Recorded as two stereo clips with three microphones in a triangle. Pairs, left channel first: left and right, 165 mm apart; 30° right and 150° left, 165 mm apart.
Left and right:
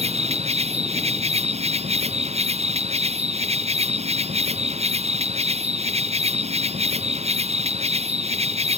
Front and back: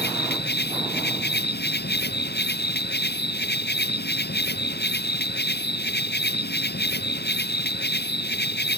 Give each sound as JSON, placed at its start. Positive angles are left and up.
{"t": 0.0, "sound": "an insect", "azimuth_deg": -40}